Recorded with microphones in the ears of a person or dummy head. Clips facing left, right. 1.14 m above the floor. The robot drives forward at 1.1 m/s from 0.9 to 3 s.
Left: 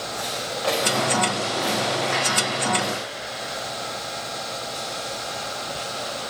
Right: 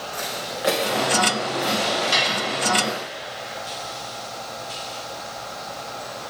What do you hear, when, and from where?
0.1 s footsteps: 35° right (ahead or behind), 3.5 m; by 3.0 s 20° left (ahead or behind), 3.5 m
2.1 s dishes clattering: 50° right (ahead or behind), 6 m; by 2.4 s 55° right (ahead or behind), 5.5 m